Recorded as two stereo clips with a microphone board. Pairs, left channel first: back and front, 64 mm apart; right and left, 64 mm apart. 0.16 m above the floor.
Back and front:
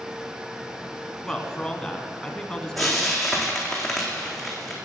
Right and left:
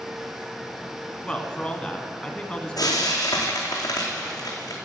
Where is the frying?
90° right, 2.5 m.